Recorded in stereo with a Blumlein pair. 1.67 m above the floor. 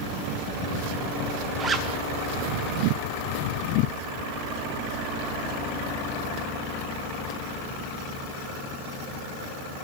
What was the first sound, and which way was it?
A zipper, 20° right.